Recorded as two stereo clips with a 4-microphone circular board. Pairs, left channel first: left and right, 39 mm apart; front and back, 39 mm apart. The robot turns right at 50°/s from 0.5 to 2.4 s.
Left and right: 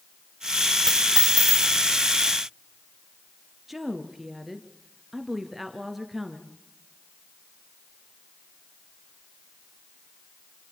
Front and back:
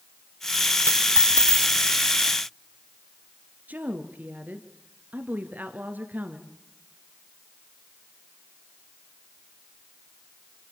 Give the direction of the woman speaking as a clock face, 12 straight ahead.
6 o'clock.